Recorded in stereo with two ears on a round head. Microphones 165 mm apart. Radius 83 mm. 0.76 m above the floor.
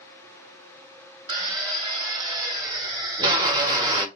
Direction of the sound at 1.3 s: 20° right (ahead or behind).